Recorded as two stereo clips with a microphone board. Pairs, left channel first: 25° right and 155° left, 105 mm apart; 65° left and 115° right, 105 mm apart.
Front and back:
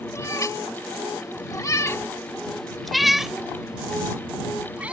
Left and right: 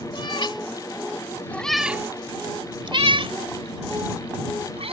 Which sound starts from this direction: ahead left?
A cat meowing, at 0.1 s.